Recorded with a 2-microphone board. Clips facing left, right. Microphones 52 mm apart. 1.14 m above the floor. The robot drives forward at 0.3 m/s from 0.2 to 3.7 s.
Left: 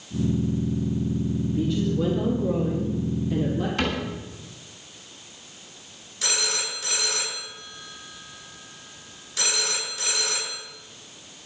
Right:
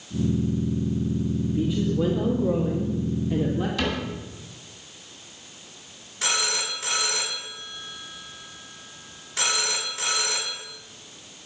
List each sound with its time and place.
1.6 s a woman speaking: 10° right (ahead or behind), 1.9 m; by 3.7 s 5° right (ahead or behind), 2.5 m
3.8 s a cupboard door: 40° left (ahead or behind), 6 m
6.2 s a phone ringing: 30° right (ahead or behind), 6.5 m